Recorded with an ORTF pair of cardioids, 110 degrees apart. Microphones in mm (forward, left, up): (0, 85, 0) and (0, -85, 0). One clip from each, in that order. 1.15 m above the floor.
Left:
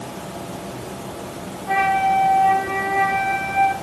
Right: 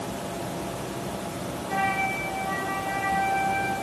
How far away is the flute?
About 1.0 m.